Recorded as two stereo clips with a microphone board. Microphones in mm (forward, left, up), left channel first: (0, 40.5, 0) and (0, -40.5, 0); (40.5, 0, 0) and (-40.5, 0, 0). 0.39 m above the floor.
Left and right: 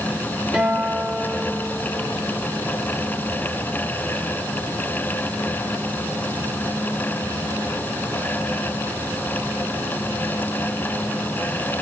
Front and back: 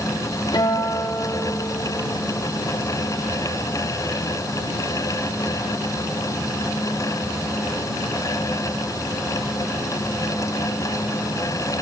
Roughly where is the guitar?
Ahead.